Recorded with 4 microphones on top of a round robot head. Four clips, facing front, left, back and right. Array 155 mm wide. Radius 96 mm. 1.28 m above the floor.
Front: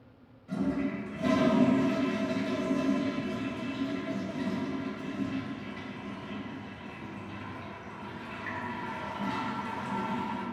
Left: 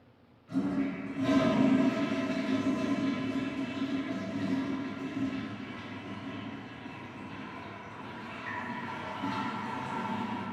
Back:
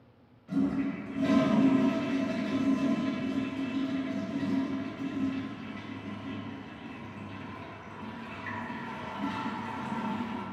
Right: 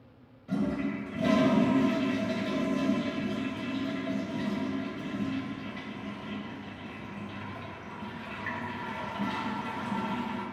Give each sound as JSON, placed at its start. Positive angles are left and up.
{"t": 0.5, "sound": "a toilet flushing", "azimuth_deg": -105, "distance_m": 0.7}